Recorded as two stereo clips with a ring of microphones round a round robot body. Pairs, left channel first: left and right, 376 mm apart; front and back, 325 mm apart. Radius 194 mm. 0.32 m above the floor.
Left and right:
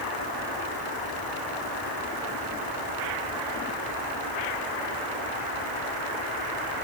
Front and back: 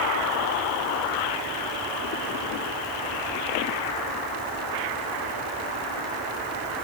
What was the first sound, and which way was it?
Only background noise.